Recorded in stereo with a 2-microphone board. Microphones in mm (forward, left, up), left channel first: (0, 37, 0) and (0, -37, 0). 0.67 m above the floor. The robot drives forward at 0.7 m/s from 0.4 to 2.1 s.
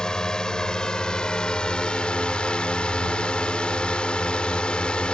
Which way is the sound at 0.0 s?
10° left (ahead or behind).